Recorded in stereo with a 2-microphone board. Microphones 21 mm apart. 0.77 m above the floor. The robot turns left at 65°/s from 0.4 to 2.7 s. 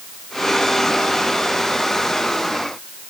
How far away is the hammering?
No hammering in this recording.